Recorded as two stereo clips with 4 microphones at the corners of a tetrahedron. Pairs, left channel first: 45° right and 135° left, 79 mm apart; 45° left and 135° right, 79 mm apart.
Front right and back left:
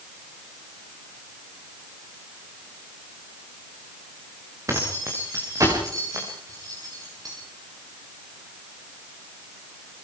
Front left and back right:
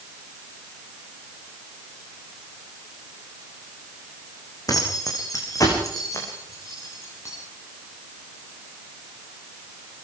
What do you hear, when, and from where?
4.7 s keys jangling: 85° left, 8.5 m; by 7.3 s 95° left, 11.5 m